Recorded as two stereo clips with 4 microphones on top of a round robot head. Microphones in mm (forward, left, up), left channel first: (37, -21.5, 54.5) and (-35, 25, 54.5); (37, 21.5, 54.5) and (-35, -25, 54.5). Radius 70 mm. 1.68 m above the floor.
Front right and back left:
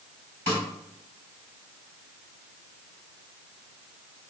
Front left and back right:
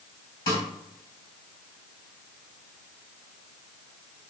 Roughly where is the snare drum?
Left.